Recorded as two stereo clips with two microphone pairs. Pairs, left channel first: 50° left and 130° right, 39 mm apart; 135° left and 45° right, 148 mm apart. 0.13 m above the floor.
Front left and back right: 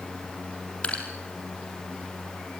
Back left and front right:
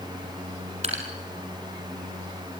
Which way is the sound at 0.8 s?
5° right.